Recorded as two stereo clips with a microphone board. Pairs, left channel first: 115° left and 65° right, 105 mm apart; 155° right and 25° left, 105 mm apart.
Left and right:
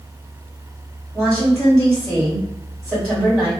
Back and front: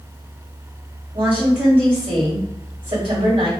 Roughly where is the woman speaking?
Ahead left.